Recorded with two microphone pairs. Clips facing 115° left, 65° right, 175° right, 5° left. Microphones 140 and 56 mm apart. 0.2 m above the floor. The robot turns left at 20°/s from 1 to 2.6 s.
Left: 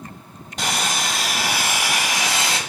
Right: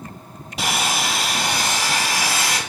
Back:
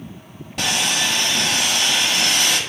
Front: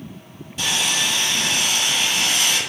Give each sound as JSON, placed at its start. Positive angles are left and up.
{"t": 0.6, "sound": "sawing", "azimuth_deg": -150, "distance_m": 0.9}